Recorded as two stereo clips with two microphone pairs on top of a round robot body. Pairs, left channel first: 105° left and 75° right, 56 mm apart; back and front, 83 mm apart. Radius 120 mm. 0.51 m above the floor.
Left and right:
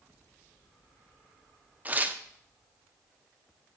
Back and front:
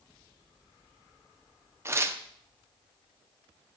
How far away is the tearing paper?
About 0.9 m.